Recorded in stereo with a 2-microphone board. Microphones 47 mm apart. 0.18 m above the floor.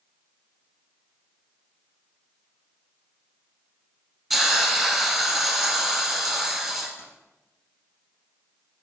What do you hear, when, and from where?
4.3 s a hiss: centre (ahead or behind), 2.0 m
7.0 s keys jangling: 70° left (ahead or behind), 3.5 m